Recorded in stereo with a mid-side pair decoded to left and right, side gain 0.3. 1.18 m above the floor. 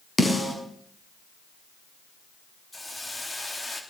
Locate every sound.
0.2 s a snare drum: 30° left, 6 m
2.7 s a hiss: 25° left, 3 m